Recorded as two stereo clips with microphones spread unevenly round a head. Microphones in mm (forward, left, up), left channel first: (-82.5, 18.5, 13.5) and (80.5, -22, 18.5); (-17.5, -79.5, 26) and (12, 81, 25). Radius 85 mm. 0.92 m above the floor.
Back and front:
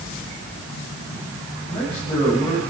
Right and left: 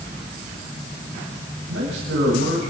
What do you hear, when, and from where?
1.7 s a man speaking: 100° left, 7 m